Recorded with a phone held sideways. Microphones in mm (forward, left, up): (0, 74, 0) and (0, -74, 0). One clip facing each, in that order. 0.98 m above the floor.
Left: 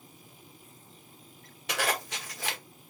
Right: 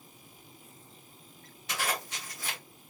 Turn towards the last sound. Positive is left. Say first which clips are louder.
# left 3 dB
turn(degrees=75)  # may be behind; listen again after turning